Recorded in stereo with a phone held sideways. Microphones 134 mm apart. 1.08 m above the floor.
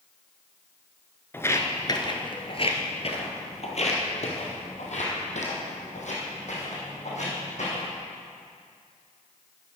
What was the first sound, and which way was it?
Footsteps, 15° left (ahead or behind).